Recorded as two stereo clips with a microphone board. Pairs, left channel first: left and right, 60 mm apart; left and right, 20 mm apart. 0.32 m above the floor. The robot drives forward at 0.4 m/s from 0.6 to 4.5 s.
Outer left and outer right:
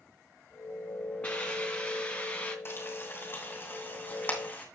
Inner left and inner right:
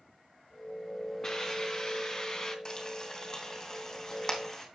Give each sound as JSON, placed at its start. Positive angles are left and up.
{"t": 1.2, "sound": "a hiss", "side_deg": 20, "distance_m": 2.5}
{"t": 2.6, "sound": "frying", "side_deg": 40, "distance_m": 2.0}